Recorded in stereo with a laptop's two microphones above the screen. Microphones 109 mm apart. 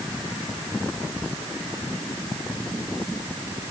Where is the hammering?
I don't hear hammering.